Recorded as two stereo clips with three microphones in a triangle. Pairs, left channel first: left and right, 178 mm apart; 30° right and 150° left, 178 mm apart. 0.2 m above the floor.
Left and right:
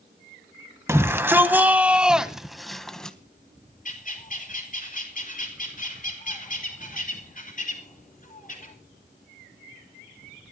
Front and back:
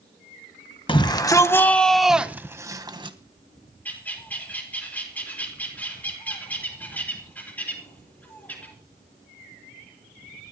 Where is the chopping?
No chopping in this recording.